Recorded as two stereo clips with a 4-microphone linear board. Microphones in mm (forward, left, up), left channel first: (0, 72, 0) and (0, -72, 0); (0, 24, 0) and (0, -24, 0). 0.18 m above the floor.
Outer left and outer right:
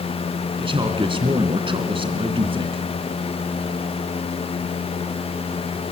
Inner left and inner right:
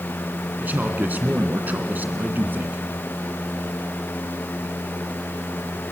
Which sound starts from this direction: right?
A man speaking, at 0.6 s.